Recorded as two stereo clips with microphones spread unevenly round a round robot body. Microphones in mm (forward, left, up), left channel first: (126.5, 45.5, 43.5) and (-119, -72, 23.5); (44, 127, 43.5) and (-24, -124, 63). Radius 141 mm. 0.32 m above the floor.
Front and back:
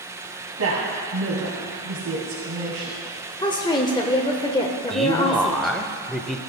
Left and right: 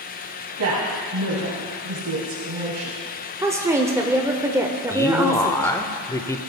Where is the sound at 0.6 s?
135° right, 2 m.